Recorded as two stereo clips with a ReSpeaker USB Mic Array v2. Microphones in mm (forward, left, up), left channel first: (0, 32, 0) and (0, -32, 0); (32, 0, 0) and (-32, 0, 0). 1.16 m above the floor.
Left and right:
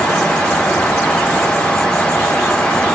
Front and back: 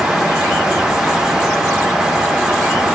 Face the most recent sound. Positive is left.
No sound to turn to.